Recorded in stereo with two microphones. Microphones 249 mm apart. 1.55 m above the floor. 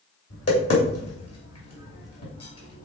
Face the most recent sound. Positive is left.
turn(degrees=65)  # may be behind; listen again after turning